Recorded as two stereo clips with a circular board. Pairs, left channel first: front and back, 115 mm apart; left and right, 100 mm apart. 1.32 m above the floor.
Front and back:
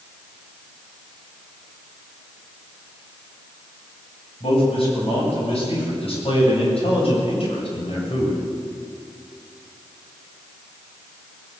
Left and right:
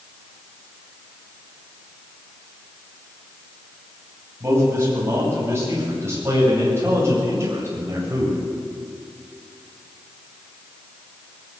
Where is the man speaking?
25° right, 9.5 m; by 8.4 s 30° right, 7 m.